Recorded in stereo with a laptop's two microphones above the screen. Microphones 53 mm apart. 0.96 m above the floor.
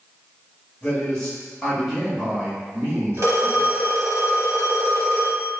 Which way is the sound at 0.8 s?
25° left (ahead or behind).